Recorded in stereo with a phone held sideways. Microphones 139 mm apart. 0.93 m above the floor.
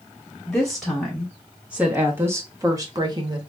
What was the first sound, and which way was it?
A woman speaking, 5° left (ahead or behind).